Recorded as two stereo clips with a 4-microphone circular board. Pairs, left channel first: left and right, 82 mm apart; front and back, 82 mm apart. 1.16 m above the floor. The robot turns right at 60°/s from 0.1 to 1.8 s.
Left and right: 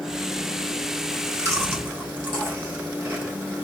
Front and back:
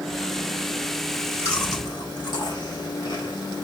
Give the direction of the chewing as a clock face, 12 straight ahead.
2 o'clock.